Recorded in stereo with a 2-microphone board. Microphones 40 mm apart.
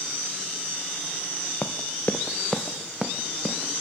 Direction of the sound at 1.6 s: 65° left (ahead or behind).